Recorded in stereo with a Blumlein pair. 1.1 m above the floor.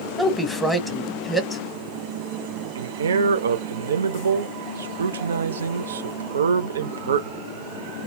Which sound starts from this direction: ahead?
A woman speaking, at 0.2 s.